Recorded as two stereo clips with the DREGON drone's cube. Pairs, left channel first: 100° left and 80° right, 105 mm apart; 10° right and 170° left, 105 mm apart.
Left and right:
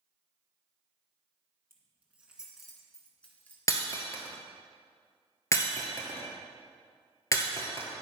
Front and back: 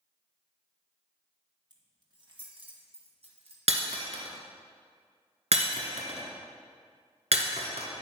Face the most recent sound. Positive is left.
turn(degrees=160)